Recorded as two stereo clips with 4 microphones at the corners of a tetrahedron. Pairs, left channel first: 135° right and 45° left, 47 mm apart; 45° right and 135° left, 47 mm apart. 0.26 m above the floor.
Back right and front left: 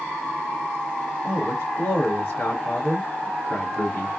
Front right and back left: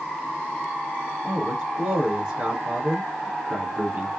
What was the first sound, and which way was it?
A man speaking, 160° right.